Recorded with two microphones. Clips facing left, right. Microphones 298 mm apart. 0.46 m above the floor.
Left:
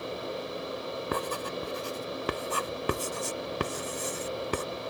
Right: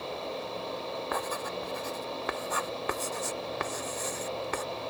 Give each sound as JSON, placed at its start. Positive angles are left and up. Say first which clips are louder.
{"t": 1.1, "sound": "writing", "louder": "left 4 dB", "side_deg": 40}